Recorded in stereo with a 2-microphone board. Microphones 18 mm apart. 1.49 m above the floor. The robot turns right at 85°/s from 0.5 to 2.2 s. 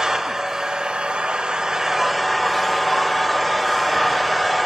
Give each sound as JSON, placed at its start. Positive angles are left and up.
{"t": 0.0, "sound": "an engine running", "azimuth_deg": -145, "distance_m": 4.5}